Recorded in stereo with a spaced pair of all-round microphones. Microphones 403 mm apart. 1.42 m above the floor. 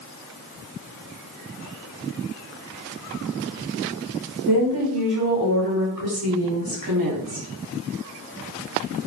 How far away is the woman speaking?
About 4.5 m.